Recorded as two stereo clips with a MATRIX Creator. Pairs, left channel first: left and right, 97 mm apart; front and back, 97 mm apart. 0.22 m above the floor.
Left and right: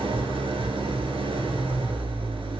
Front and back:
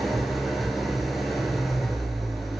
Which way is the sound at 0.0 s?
90° right.